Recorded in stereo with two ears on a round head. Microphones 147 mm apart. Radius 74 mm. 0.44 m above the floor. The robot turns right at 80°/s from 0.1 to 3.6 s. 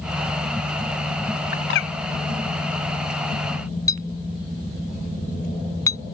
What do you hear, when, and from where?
1.5 s a bird: 55° left (ahead or behind); by 1.9 s 80° left
3.9 s a clink: 20° left (ahead or behind)